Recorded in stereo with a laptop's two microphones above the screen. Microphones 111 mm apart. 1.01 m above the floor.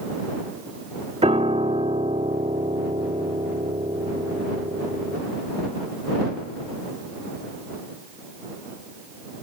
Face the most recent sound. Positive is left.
turn(degrees=-75)  # may be behind; listen again after turning